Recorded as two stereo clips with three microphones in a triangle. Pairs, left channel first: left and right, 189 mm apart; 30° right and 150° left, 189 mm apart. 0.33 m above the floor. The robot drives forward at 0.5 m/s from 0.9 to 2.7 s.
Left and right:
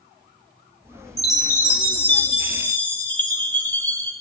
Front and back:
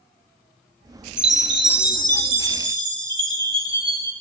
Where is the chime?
160° left, 0.6 m; by 4.1 s 170° left, 1.3 m.